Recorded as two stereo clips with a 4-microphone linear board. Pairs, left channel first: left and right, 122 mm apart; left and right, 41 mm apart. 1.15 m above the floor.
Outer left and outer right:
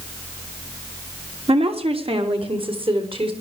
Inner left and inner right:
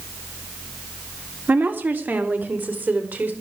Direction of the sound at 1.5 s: 55° right (ahead or behind).